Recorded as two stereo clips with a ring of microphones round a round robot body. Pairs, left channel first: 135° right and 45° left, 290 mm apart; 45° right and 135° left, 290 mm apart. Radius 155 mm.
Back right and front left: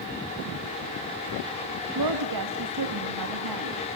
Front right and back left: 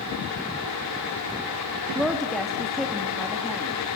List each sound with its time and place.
1.9 s a woman speaking: 45° left, 1.9 m